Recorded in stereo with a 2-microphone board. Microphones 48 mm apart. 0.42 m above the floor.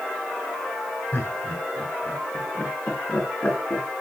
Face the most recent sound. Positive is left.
turn(degrees=20)  # may be behind; listen again after turning